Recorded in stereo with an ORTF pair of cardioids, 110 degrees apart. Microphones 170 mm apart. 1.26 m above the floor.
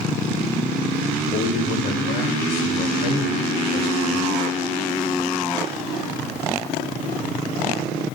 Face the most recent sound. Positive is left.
turn(degrees=65)